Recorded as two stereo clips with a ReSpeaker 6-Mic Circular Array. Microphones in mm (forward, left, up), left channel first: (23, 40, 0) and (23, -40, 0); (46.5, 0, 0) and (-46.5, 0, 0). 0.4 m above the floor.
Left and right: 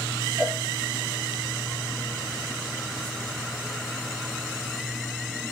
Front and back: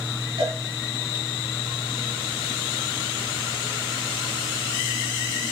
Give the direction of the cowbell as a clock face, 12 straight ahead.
6 o'clock.